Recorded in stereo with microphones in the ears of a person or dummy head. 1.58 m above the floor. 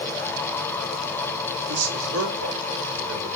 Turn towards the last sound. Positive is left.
turn(degrees=-85)